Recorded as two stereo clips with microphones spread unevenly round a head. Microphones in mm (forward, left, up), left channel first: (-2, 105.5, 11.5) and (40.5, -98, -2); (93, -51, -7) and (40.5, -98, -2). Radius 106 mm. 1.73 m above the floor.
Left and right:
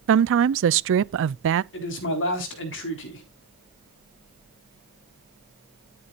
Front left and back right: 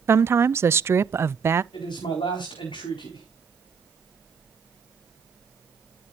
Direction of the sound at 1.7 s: 70° left.